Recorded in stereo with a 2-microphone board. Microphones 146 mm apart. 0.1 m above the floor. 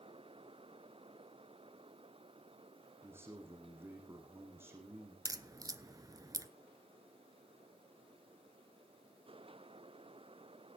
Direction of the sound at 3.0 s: 15° right (ahead or behind).